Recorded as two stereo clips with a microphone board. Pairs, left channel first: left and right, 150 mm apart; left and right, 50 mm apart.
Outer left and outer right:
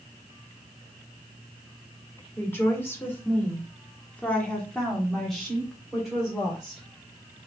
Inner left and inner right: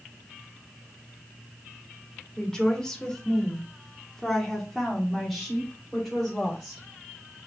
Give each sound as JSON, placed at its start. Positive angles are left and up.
{"t": 2.4, "sound": "a woman speaking", "side_deg": 15, "distance_m": 1.7}